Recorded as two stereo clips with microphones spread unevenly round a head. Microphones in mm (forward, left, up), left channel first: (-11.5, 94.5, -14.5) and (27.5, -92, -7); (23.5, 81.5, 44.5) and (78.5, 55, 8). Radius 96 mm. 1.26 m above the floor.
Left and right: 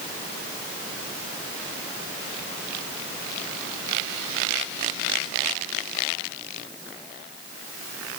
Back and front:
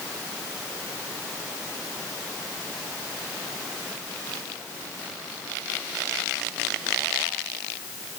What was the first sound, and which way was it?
Only background noise.